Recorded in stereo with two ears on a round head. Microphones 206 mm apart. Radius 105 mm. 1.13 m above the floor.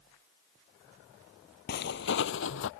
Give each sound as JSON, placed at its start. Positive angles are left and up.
{"t": 1.7, "sound": "footsteps", "side_deg": 45}